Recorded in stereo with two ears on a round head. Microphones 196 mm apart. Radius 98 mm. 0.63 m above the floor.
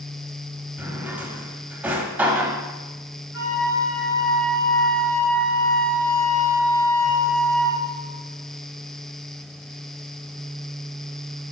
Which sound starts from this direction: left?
A flute, at 3.3 s.